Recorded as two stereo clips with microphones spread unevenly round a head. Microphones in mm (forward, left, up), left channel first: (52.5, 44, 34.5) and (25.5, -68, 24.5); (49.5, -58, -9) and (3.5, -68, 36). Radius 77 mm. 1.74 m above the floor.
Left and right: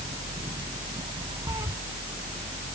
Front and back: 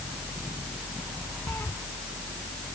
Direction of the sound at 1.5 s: 40° right.